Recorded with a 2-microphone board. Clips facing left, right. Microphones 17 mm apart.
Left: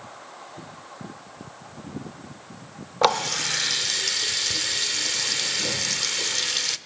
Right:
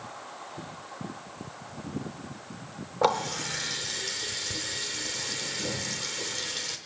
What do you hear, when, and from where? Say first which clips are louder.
3.0 s a running tap: left 5 dB; 50° left (ahead or behind), 0.6 m